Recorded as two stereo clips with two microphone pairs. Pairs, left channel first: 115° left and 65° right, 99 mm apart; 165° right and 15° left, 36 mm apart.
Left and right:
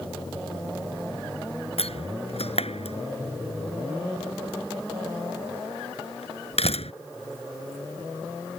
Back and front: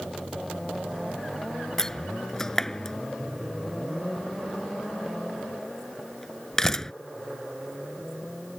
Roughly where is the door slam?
Behind left.